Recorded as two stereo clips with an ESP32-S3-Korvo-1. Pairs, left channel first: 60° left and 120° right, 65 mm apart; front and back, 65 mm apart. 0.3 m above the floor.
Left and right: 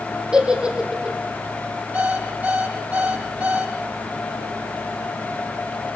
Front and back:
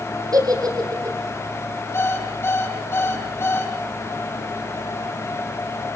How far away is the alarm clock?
About 6 m.